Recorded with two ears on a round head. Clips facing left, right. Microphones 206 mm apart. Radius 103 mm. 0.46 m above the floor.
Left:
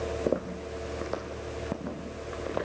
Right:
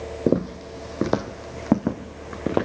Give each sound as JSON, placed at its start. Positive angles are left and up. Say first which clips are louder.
{"t": 0.3, "sound": "footsteps", "louder": "right 11 dB", "side_deg": -45, "distance_m": 1.1}